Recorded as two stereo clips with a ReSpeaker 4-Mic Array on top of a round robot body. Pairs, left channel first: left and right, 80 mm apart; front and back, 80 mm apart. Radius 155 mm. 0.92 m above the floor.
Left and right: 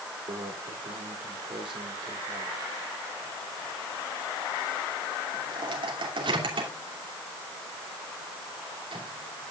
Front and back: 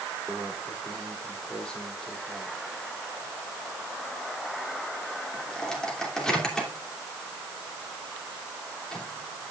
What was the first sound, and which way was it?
A microwave, 80° right.